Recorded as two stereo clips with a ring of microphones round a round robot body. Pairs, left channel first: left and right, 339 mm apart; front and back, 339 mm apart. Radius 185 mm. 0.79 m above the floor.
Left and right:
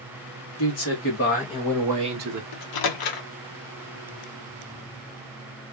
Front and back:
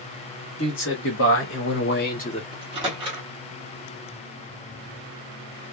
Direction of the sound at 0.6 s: 55° left.